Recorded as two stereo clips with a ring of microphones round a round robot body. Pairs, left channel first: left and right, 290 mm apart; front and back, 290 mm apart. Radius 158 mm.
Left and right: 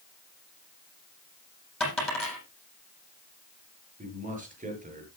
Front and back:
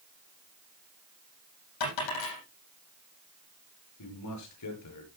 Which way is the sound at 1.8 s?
Straight ahead.